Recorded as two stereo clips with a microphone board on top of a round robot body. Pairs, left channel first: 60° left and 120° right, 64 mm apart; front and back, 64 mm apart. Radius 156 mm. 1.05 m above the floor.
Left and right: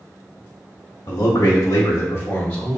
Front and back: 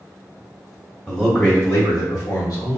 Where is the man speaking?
85° left, 1.2 m; by 2.8 s 20° right, 1.6 m.